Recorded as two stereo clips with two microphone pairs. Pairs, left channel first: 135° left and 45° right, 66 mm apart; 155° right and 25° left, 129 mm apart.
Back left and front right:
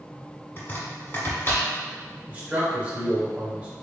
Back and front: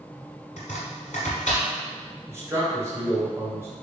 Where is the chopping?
165° right, 1.3 m.